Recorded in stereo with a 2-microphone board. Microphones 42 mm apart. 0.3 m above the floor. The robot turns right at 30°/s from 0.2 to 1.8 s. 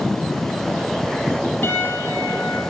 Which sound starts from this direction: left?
A piano, at 1.6 s.